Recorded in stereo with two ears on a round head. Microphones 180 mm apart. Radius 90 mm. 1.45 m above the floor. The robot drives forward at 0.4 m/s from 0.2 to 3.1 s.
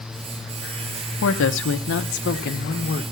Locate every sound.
1.2 s a woman speaking: 75° left (ahead or behind), 0.9 m; by 3.0 s 45° left (ahead or behind), 1.3 m